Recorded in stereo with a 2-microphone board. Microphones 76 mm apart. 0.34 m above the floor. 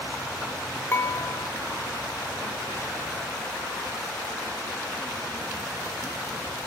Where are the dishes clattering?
30° left (ahead or behind), 0.9 m.